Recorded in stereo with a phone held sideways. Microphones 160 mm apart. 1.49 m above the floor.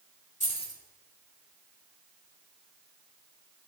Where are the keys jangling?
50° left (ahead or behind), 3.5 m.